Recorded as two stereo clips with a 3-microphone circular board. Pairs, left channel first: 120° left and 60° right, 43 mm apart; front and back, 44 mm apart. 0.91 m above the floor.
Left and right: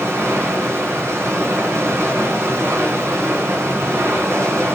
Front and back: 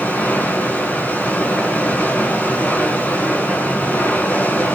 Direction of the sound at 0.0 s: 50° right.